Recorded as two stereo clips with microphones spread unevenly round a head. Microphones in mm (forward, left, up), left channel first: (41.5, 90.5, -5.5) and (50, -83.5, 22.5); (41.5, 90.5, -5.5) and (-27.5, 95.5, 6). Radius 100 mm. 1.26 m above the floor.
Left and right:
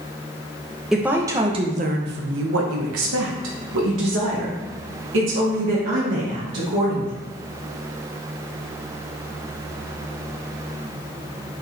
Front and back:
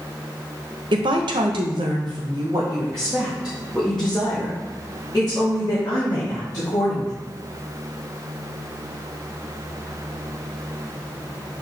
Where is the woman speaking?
175° right, 0.9 m; by 7.1 s 75° right, 3 m.